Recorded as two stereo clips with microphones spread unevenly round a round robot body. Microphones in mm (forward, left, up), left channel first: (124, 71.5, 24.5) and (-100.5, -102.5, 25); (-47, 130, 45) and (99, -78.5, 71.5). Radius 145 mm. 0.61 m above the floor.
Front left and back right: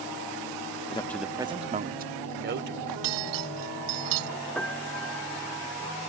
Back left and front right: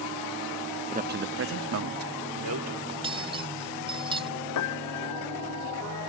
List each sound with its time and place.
0.9 s a man speaking: 5° right; by 2.8 s 90° right
2.9 s cutlery clinking: 130° right
4.5 s a piano: 125° left